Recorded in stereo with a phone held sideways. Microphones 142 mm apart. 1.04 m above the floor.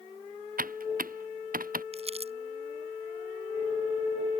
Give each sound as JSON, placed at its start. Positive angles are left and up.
{"t": 0.6, "sound": "typing on a keyboard", "side_deg": -90}
{"t": 1.9, "sound": "crumpling", "side_deg": -45}